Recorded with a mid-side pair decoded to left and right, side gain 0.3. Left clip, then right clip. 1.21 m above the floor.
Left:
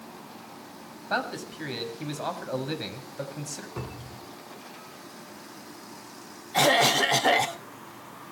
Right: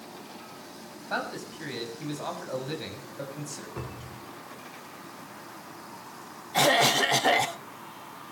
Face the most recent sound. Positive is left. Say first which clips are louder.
# left 1 dB
turn(degrees=15)